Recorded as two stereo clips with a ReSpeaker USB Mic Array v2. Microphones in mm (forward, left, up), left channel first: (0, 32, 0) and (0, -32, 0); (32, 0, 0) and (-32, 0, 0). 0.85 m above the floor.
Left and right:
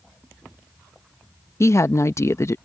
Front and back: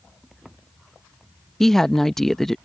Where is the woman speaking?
85° left.